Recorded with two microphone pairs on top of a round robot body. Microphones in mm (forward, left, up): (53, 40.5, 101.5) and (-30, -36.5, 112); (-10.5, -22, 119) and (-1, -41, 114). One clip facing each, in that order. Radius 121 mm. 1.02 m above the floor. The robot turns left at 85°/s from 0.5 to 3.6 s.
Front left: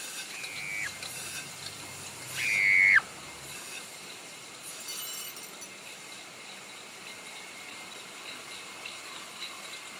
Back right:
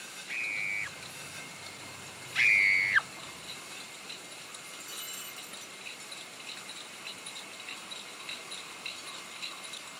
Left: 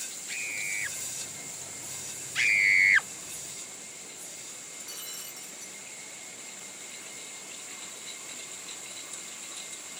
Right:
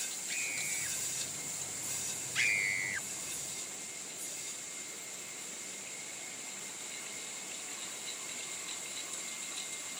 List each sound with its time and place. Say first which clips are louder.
0.3 s a scream: back right 7 dB, left 5 dB; 165° right; by 1.0 s 155° left
2.4 s a scream: even, left 9 dB; 165° right; by 3.1 s 135° left
4.7 s breaking glass: front left 1 dB, left 4 dB; 105° left